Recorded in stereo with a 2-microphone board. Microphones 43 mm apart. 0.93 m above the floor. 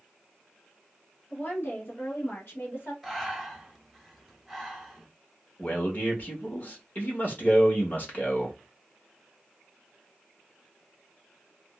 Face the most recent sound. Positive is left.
turn(degrees=35)  # may be behind; listen again after turning